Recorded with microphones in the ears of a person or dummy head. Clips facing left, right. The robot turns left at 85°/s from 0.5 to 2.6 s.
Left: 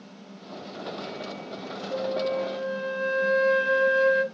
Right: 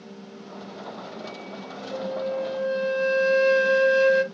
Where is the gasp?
No gasp in this recording.